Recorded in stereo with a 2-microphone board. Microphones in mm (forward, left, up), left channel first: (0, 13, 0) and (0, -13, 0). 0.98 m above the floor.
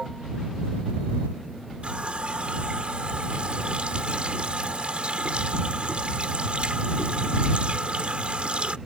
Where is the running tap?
55° right (ahead or behind).